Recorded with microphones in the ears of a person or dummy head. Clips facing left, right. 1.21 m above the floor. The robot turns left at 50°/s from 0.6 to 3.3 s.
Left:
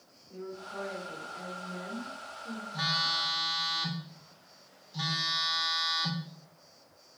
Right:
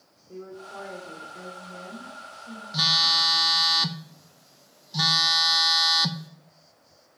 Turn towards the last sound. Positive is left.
turn(degrees=-75)  # may be behind; listen again after turning